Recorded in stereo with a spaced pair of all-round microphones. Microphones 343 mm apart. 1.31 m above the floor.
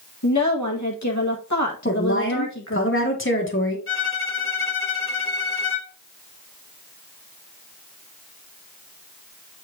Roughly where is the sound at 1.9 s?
Left.